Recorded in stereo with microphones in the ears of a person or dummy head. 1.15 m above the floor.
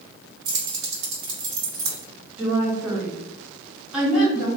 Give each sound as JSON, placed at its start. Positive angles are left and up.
{"t": 0.5, "sound": "keys jangling", "side_deg": -85, "distance_m": 1.7}
{"t": 2.4, "sound": "a woman speaking", "side_deg": -5, "distance_m": 1.5}